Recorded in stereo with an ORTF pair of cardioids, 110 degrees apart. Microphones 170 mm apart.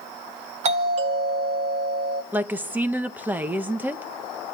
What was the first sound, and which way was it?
A doorbell, 45° right.